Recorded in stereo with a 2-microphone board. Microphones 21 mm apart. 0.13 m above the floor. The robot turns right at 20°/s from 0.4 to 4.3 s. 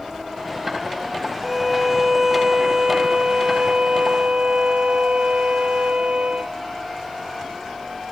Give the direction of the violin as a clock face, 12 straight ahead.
6 o'clock.